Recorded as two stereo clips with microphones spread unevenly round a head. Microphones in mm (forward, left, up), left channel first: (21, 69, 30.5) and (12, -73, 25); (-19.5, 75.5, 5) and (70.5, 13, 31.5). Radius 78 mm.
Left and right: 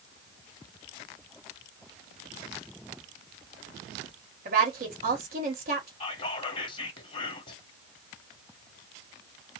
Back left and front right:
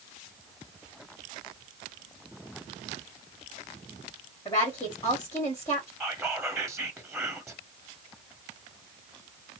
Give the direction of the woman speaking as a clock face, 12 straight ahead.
4 o'clock.